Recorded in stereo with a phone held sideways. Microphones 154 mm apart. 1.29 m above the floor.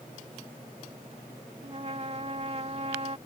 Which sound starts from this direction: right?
A trumpet, at 1.6 s.